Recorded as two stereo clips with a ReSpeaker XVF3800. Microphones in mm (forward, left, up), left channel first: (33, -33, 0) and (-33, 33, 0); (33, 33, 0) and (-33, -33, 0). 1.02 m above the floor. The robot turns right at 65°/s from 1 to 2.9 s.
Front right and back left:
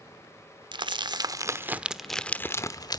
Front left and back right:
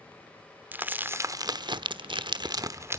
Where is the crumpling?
155° left, 1.0 m; by 3.0 s 80° right, 1.0 m.